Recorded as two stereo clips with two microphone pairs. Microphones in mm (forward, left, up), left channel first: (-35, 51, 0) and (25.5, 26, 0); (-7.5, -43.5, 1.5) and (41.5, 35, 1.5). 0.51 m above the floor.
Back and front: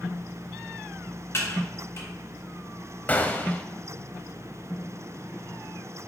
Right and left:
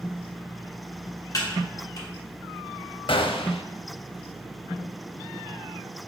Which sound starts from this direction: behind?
Typing on a keyboard, at 1.3 s.